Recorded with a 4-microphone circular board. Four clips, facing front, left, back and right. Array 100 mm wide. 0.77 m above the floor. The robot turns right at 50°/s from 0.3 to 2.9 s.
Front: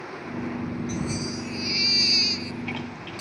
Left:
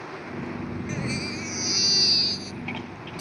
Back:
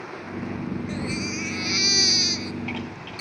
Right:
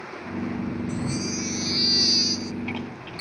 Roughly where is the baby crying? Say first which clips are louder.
Right 2 dB, back 1 dB; behind left.